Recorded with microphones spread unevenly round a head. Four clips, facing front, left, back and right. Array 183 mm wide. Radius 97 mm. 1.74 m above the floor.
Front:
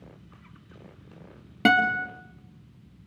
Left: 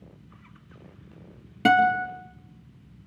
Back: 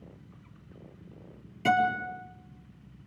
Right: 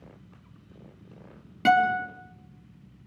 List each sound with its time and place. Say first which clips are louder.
1.6 s a guitar: left 2 dB, front 3 dB; 10° left, 3.5 m